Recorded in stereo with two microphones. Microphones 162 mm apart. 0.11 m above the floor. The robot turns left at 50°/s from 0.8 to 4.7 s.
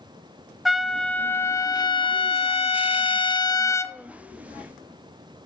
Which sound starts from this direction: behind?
A trumpet, at 0.7 s.